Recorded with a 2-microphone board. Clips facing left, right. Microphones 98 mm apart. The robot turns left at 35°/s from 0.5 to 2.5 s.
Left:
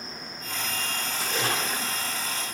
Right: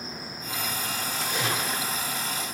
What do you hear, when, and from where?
1.1 s a splash: 80° left, 1.3 m; by 2.1 s 50° left, 1.3 m